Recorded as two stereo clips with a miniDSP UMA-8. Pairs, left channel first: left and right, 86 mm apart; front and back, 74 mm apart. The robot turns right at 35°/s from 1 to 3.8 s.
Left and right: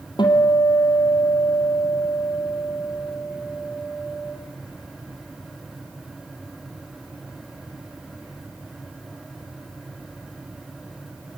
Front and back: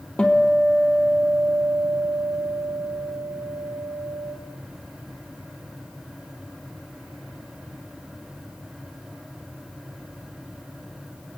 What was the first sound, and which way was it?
A guitar, 75° left.